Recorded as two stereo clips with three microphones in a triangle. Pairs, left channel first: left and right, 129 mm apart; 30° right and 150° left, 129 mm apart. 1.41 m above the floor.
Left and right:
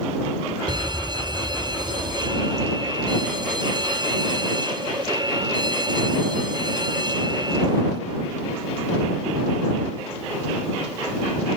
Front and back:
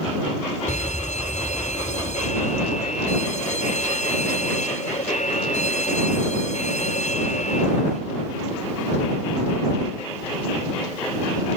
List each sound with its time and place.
0.7 s a fire alarm: 40° right